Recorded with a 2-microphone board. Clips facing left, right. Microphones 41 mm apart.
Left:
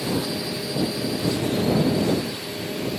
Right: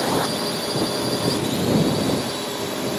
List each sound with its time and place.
0.0 s a drone: 65° right (ahead or behind)